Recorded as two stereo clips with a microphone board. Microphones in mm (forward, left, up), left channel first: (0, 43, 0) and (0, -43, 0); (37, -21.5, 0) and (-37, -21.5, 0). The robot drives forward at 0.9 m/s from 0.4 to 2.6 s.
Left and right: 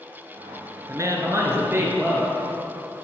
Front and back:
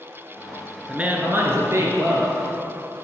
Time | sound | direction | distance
0.9 | a woman speaking | 115° right | 1.4 m